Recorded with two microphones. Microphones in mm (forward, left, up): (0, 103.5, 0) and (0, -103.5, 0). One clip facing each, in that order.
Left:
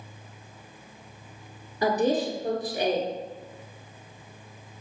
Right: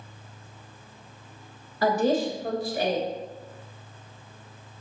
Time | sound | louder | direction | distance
1.8 | a woman speaking | right 1 dB | 20° left (ahead or behind) | 1.1 m